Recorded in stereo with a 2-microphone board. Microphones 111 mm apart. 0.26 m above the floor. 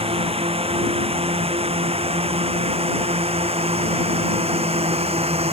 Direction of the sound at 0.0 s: 65° right (ahead or behind).